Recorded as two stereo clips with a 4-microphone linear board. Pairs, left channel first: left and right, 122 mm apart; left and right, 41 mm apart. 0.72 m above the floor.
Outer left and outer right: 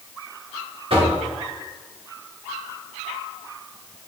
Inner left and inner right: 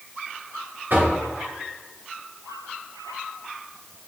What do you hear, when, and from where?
0.9 s knocking: 50° right (ahead or behind), 1.6 m